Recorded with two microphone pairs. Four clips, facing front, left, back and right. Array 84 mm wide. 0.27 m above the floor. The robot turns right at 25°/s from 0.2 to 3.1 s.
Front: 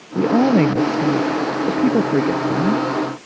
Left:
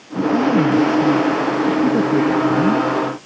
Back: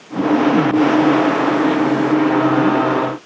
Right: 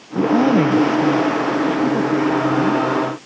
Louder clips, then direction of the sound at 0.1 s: Right 1 dB, back 1 dB; 35° right.